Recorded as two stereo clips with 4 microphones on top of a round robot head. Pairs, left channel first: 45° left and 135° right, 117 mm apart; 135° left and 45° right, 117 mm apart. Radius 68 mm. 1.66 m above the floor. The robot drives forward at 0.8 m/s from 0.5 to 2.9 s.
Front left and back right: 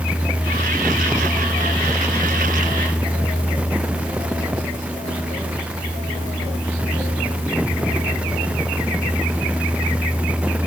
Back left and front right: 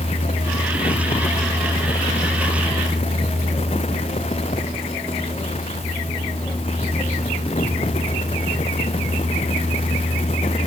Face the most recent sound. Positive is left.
No sound to turn to.